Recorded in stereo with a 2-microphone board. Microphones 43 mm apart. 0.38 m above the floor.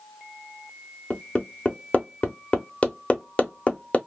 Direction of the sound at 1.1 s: 30° left (ahead or behind).